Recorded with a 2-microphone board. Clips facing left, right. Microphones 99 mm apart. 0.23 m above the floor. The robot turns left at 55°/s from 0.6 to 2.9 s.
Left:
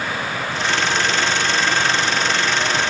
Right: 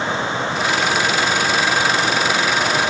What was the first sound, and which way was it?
Only background noise.